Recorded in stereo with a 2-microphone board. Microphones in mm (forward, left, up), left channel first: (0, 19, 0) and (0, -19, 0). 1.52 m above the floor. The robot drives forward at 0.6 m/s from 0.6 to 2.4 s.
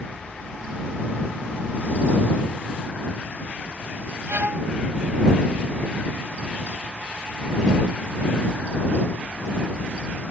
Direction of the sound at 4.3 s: 65° right (ahead or behind).